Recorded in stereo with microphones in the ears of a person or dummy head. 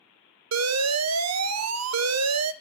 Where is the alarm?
75° right (ahead or behind), 0.6 m.